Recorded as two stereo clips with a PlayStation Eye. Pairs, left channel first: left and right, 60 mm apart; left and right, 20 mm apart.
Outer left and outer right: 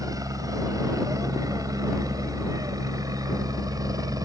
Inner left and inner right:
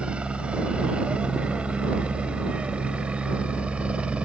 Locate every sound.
0.0 s a helicopter: 65° right (ahead or behind); by 4.3 s 75° right (ahead or behind)